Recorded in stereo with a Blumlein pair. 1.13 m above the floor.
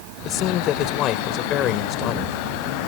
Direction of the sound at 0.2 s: 35° left.